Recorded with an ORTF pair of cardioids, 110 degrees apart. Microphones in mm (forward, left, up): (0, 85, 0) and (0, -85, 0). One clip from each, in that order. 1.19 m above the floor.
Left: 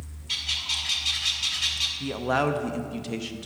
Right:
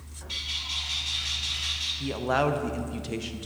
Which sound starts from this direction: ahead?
A man speaking, at 2.0 s.